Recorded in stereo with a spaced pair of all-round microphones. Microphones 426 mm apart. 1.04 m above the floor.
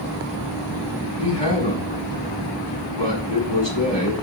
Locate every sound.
1.2 s a man speaking: 85° left, 7 m